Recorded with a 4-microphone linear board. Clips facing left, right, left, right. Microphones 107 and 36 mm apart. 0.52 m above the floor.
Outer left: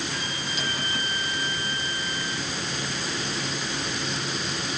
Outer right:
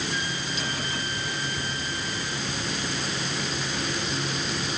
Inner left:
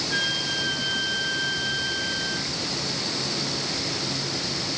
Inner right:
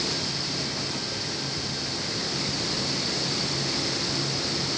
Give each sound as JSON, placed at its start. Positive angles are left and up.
{"t": 0.1, "sound": "a flute", "side_deg": 70}